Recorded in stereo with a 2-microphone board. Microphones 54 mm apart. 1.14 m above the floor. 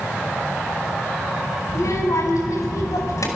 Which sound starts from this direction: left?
A child speaking, at 1.7 s.